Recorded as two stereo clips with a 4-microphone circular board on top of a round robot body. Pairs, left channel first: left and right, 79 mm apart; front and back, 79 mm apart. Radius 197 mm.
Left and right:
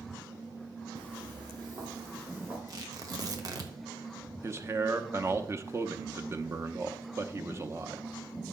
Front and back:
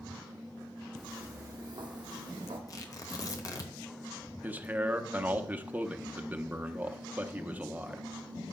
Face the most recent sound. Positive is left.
turn(degrees=-120)